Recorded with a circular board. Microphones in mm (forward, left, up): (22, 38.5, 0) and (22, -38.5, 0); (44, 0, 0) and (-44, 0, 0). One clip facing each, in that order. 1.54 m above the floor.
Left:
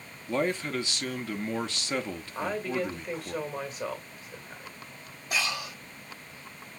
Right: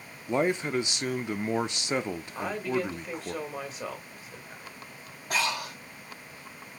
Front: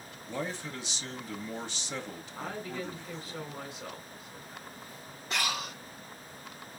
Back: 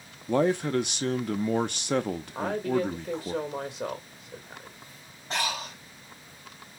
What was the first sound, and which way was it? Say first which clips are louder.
A man speaking: right 2 dB, back 13 dB; 160° right.